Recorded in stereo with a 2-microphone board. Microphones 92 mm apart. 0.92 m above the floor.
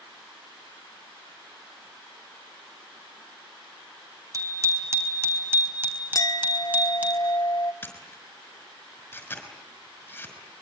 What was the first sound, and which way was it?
A bicycle bell, 35° right (ahead or behind).